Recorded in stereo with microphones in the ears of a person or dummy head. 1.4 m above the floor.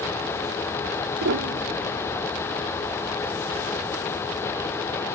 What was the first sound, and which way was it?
A piano, 60° right (ahead or behind).